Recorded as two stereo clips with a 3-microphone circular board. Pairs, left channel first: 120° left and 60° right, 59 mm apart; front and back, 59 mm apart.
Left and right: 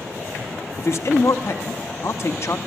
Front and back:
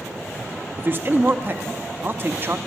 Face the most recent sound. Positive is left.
turn(degrees=140)